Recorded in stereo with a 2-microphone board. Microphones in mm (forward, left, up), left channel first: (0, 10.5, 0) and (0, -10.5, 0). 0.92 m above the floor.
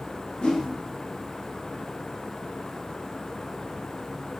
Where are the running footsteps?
I don't hear running footsteps.